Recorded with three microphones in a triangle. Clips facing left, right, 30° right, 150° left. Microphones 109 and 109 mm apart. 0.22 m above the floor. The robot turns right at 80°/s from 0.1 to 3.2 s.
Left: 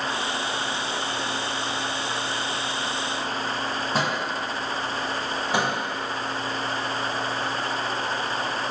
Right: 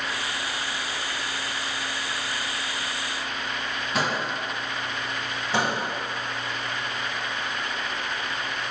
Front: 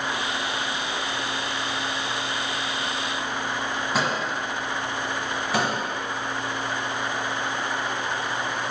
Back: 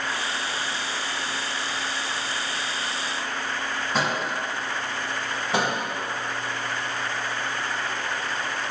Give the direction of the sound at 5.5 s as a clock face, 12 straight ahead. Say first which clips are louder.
Even, back 1 dB; 7 o'clock.